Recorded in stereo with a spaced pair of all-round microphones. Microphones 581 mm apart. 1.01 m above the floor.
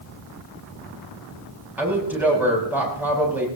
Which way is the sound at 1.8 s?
5° right (ahead or behind).